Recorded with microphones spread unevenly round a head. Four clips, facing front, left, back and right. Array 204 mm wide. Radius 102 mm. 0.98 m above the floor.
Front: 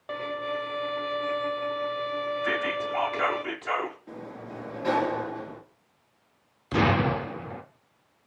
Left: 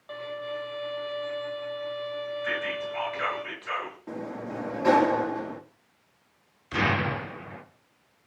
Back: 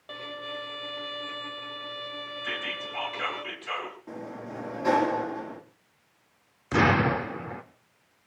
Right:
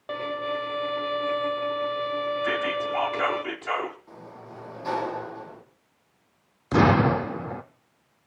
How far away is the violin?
About 0.9 m.